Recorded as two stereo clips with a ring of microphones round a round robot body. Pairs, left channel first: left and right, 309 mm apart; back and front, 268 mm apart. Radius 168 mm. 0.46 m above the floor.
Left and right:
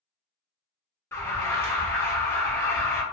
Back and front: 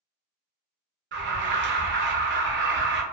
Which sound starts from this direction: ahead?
An alarm, at 1.1 s.